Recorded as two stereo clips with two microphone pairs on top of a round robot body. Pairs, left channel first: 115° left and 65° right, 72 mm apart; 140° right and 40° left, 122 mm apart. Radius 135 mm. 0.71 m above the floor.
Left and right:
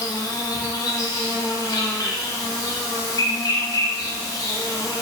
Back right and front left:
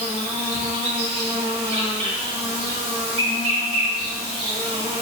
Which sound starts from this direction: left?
An insect, at 0.0 s.